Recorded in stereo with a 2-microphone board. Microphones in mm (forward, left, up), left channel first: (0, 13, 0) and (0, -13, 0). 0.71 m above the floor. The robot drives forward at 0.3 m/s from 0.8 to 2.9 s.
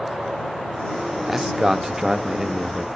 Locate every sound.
1.3 s a man speaking: 20° right (ahead or behind), 0.5 m; by 2.9 s 15° right (ahead or behind), 0.6 m